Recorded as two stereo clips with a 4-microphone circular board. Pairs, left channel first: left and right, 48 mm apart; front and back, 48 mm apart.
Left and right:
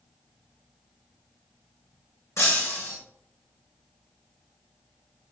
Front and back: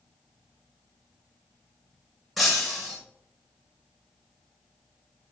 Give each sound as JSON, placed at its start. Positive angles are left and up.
{"t": 2.4, "sound": "breaking glass", "azimuth_deg": 90, "distance_m": 4.0}